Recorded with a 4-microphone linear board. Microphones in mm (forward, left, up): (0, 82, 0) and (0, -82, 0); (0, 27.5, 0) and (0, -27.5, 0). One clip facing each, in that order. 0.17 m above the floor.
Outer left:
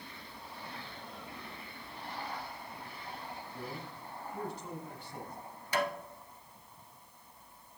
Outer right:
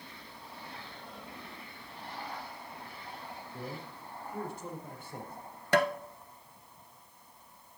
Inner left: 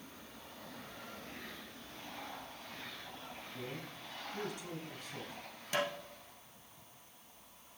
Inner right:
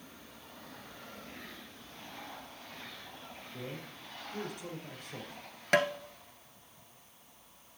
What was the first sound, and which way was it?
A man speaking, 50° right (ahead or behind).